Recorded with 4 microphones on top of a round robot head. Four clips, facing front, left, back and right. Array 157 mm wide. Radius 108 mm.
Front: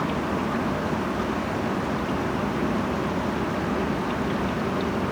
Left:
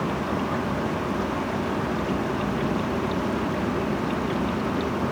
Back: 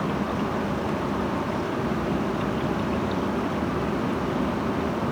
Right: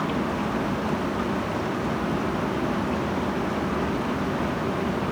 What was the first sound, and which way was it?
Only background noise.